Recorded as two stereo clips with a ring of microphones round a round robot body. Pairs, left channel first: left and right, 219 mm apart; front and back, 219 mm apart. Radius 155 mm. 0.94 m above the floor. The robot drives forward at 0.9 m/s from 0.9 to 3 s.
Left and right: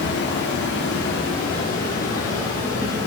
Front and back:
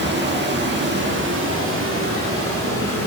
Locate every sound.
0.0 s running water: 145° left, 1.8 m; by 3.1 s 165° left, 3.5 m